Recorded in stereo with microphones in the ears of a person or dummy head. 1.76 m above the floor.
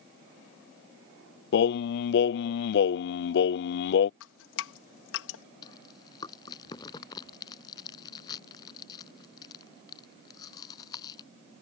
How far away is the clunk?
No clunk in this recording.